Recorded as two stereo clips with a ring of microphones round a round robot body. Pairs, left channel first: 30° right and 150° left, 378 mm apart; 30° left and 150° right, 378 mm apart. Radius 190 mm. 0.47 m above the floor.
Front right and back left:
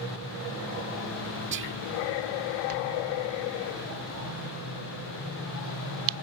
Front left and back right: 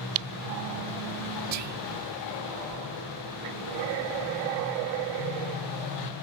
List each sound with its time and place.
1.5 s whispering: 165° right